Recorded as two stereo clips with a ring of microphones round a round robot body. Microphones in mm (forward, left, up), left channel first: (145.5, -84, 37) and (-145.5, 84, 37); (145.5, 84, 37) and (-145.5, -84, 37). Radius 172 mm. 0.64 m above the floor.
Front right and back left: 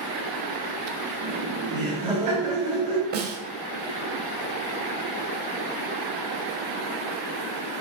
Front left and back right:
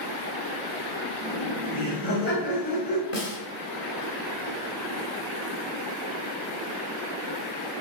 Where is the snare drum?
90° left, 1.8 m.